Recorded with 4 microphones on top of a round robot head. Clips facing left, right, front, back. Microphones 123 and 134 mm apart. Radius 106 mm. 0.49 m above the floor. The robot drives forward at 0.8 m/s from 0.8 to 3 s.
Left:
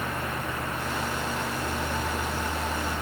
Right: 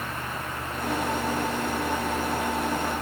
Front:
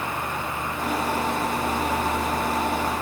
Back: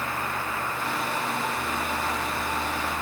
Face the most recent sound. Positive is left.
No sound to turn to.